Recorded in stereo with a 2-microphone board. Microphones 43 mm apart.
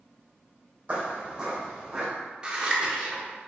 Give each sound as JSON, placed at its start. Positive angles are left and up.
{"t": 0.9, "sound": "footsteps", "side_deg": -25, "distance_m": 1.8}
{"t": 2.4, "sound": "scissors", "side_deg": -25, "distance_m": 0.8}